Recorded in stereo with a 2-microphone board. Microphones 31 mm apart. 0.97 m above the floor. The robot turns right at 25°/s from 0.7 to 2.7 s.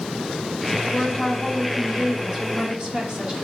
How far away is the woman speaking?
About 1.0 m.